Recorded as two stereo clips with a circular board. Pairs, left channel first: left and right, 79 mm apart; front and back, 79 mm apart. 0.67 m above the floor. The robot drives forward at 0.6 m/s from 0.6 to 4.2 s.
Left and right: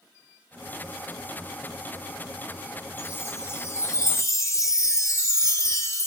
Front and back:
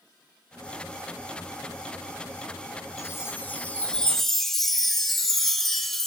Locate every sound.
3.0 s a chime: 40° left, 1.4 m; by 6.1 s 85° left, 1.2 m